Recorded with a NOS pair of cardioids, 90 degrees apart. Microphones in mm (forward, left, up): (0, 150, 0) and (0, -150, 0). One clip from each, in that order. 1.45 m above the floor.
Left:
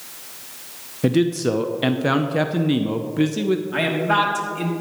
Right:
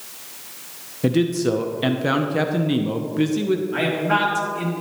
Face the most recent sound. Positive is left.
turn(degrees=25)